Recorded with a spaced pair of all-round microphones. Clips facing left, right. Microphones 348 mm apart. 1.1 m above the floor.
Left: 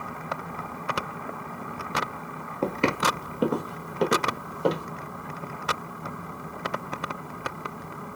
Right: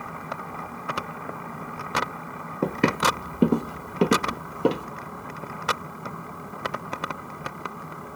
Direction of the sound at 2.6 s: 20° right (ahead or behind).